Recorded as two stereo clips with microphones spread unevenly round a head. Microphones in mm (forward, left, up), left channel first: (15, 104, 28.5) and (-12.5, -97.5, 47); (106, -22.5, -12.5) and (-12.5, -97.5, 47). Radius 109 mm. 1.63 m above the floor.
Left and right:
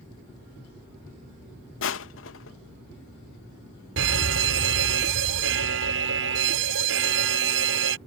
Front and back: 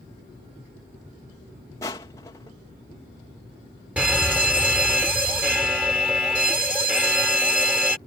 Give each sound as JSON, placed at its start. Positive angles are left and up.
{"t": 1.8, "sound": "crushing", "azimuth_deg": 115}
{"t": 4.0, "sound": "a fire alarm", "azimuth_deg": -65}